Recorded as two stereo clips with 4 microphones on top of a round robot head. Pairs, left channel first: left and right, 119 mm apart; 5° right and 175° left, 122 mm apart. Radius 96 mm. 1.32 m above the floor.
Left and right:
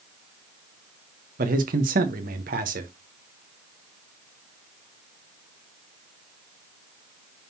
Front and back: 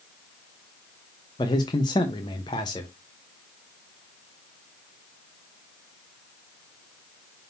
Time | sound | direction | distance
1.4 | a man speaking | 70° right | 1.0 m